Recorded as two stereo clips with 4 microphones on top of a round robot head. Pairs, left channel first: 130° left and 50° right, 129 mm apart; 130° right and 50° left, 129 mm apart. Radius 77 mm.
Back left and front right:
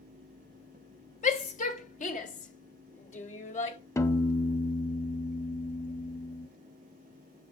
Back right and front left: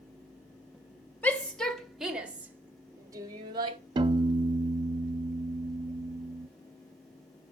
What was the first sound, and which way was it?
A shout, 150° left.